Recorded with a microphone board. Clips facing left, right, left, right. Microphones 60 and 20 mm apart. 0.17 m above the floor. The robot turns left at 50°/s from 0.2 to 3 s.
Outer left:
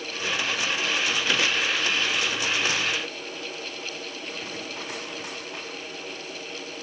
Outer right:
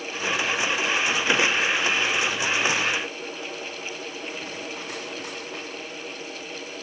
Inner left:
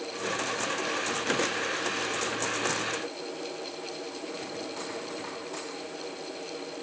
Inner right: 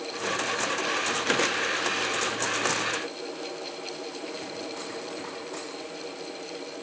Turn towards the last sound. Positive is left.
No sound to turn to.